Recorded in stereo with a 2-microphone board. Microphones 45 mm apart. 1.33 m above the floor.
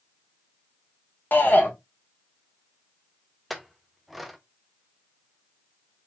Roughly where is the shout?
Left.